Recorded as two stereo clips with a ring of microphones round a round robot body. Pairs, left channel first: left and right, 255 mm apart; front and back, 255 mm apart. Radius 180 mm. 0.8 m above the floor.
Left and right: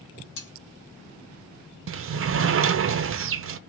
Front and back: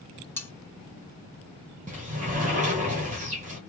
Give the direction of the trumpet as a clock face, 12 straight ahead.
I don't hear a trumpet.